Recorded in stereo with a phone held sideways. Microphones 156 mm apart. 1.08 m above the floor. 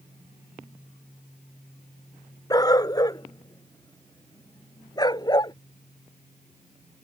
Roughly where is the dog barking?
Left.